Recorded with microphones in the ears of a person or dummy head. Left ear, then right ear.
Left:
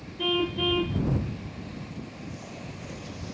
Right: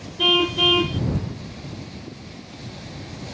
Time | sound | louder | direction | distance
0.2 | a car horn | right 9 dB | 35° right (ahead or behind) | ?